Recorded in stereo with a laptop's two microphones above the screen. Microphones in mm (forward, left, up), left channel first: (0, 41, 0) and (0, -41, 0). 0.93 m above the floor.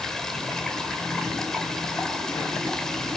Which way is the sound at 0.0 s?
5° left (ahead or behind).